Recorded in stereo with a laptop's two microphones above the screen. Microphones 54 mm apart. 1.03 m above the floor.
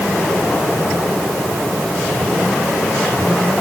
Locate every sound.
Only background noise.